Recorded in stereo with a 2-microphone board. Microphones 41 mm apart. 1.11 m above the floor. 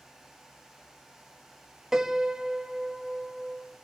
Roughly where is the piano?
Centre.